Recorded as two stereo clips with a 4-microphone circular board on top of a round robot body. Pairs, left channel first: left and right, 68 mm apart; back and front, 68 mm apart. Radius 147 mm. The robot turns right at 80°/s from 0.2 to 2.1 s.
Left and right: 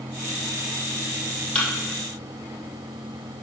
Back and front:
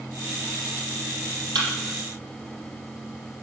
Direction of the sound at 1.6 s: 20° left.